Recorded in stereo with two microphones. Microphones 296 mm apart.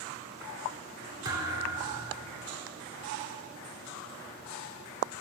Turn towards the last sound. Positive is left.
turn(degrees=-15)  # may be behind; listen again after turning